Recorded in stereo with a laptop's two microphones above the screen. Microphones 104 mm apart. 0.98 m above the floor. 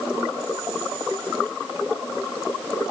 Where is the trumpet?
No trumpet in this recording.